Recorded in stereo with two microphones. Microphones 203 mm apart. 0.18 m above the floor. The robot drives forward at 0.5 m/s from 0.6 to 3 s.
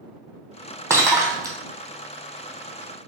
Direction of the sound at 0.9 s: 15° right (ahead or behind).